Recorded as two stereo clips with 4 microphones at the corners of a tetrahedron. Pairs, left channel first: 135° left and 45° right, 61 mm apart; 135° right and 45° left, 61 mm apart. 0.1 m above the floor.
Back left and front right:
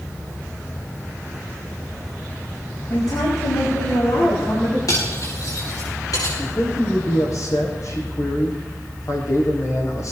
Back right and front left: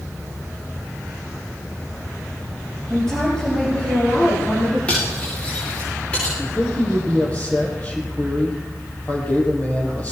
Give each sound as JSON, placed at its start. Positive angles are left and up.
{"t": 2.9, "sound": "a woman speaking", "azimuth_deg": 145, "distance_m": 5.5}
{"t": 4.9, "sound": "cutlery clinking", "azimuth_deg": 160, "distance_m": 9.0}
{"t": 6.4, "sound": "a man speaking", "azimuth_deg": 165, "distance_m": 5.0}